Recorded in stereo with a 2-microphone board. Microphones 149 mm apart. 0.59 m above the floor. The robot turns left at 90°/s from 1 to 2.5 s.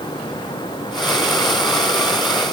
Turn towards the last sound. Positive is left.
No sound to turn to.